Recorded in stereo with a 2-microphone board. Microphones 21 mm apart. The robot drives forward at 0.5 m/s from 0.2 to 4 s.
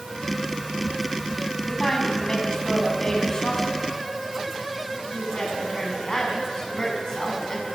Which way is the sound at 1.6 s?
35° left (ahead or behind).